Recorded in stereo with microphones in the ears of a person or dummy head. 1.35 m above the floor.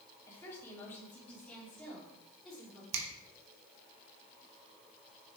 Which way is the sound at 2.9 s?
90° right.